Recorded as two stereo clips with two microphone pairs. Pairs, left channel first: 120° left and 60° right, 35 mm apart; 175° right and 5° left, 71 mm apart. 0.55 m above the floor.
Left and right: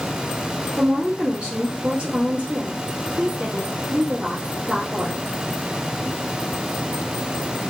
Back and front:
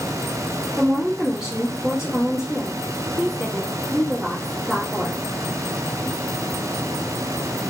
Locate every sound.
0.8 s a woman speaking: 70° right, 1.2 m